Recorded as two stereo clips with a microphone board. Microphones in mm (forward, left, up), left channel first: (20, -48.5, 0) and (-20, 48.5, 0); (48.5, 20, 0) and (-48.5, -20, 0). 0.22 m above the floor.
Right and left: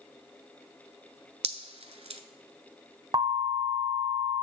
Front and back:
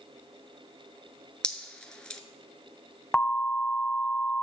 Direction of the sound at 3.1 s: 105° left.